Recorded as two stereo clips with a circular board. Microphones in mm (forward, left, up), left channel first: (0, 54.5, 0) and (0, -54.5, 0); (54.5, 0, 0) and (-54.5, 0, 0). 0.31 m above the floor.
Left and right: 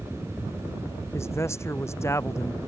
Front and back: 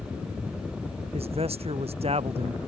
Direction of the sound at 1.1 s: 155° left.